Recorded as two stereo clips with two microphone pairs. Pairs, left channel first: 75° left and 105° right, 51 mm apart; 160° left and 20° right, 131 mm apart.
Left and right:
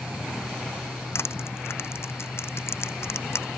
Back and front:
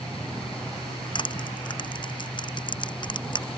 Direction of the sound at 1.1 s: 110° left.